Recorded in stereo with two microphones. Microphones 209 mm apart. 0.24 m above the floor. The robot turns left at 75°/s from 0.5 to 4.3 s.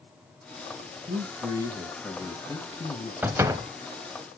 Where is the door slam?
10° right (ahead or behind), 0.6 m; by 3.7 s 20° right (ahead or behind), 0.6 m.